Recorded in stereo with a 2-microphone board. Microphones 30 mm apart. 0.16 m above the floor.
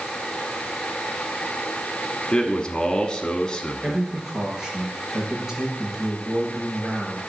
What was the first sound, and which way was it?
A man speaking, 25° left (ahead or behind).